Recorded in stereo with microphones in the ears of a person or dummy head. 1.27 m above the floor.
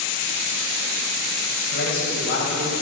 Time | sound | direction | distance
1.7 | a man speaking | 70° left (ahead or behind) | 7.5 m